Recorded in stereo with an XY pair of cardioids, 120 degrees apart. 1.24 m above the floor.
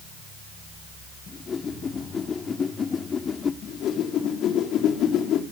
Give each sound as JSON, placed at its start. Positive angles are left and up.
{"t": 1.3, "sound": "a whoosh", "azimuth_deg": 35, "distance_m": 1.6}
{"t": 3.6, "sound": "a whoosh", "azimuth_deg": 65, "distance_m": 3.5}